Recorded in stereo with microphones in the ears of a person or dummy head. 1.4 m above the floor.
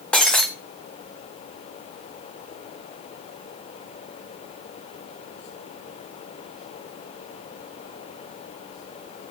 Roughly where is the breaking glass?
Centre.